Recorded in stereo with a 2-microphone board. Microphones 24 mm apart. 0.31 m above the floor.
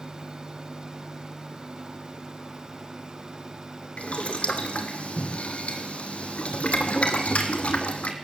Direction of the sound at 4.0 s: 60° left (ahead or behind).